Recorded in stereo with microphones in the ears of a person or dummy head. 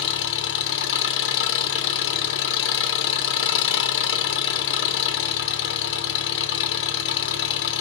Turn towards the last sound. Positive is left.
turn(degrees=65)  # may be behind; listen again after turning